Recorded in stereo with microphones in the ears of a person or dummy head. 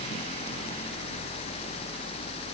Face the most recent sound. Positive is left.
No sound to turn to.